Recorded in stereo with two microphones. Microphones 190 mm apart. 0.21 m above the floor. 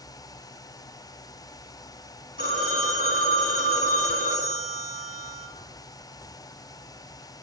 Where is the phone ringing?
75° right (ahead or behind), 3.5 m.